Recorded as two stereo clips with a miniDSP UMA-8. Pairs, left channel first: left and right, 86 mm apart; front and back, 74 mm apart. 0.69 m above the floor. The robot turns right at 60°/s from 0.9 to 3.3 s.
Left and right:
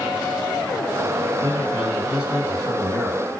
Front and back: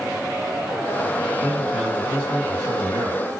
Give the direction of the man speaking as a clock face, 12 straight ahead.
10 o'clock.